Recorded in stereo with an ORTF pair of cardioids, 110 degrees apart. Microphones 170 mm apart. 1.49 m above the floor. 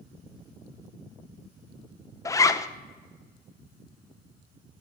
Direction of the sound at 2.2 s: 20° left.